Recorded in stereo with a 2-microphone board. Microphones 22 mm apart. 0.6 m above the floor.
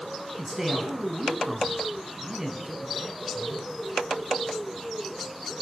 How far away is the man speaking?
About 5.5 m.